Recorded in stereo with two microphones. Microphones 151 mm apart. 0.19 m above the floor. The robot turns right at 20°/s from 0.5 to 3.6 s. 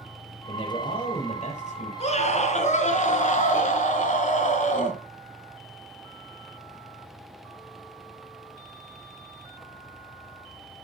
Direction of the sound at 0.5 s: 30° left (ahead or behind).